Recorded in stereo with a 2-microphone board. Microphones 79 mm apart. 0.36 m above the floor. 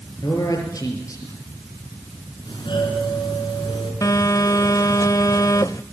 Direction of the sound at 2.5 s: 75° left (ahead or behind).